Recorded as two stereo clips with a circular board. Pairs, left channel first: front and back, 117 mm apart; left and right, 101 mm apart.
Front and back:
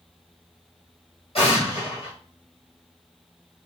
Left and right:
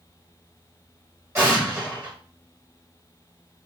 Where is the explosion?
25° right, 1.5 m.